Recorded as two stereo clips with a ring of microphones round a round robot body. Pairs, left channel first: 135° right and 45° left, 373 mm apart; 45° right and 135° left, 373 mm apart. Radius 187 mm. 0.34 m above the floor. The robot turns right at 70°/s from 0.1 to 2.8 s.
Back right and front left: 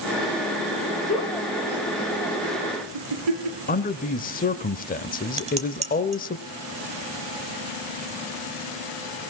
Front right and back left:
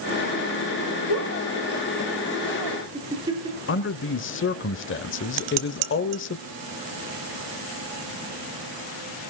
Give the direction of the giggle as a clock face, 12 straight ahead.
2 o'clock.